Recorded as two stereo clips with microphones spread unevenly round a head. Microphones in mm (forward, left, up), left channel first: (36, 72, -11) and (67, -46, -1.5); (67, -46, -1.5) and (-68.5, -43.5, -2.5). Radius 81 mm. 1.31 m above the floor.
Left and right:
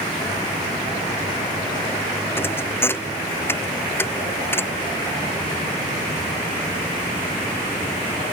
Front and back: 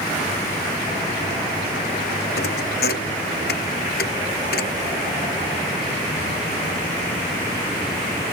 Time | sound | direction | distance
2.4 | a thud | 35° left | ?